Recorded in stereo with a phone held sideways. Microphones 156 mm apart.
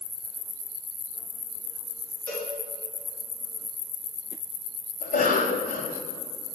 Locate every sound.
2.3 s a cowbell: 10° left (ahead or behind), 2.5 m
5.0 s a cough: 55° left (ahead or behind), 1.2 m